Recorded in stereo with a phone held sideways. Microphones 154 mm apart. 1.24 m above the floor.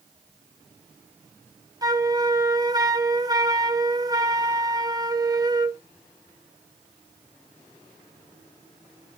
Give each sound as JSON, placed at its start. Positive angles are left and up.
{"t": 1.8, "sound": "a flute", "side_deg": -25, "distance_m": 0.5}